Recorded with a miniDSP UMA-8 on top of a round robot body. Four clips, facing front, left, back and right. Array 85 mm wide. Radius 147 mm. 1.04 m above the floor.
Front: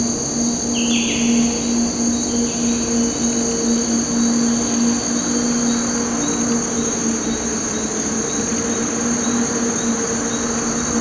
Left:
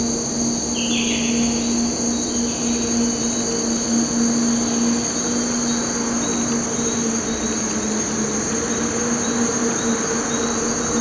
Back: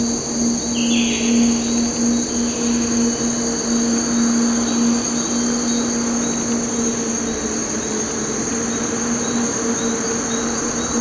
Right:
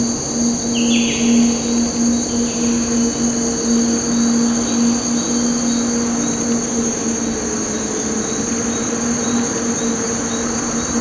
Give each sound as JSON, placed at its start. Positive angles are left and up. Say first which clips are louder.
{"t": 0.0, "sound": "an insect", "louder": "right 4 dB, back 1 dB", "azimuth_deg": -70, "distance_m": 0.8}